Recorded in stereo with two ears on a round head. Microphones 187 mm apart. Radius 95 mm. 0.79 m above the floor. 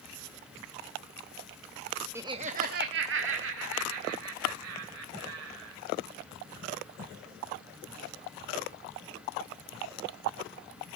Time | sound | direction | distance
2.1 | laughter | 10° right (ahead or behind) | 0.7 m